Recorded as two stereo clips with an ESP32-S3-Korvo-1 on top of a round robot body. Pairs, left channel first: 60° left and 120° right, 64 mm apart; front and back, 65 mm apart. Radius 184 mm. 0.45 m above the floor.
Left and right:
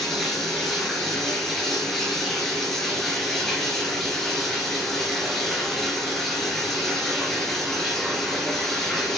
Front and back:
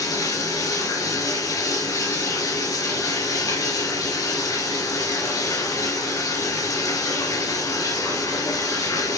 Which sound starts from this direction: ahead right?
Running water, at 0.0 s.